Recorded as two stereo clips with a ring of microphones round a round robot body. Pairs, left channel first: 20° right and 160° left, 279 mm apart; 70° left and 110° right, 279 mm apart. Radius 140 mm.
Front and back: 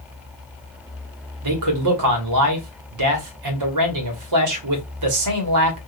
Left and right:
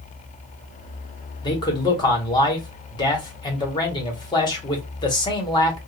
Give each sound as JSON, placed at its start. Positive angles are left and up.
{"t": 1.4, "sound": "a man speaking", "azimuth_deg": 140, "distance_m": 1.3}